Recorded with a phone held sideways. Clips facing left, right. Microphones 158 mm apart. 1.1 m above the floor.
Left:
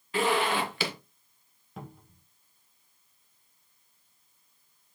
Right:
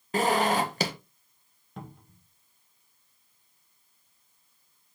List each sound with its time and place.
0.1 s a zipper: 40° right (ahead or behind), 1.1 m
1.8 s a cupboard door: centre (ahead or behind), 1.2 m